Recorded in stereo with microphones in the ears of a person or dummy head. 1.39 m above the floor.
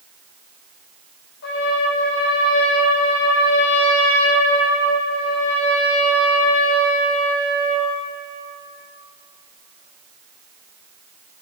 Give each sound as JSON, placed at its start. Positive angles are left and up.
{"t": 1.4, "sound": "a trumpet", "side_deg": 65, "distance_m": 2.5}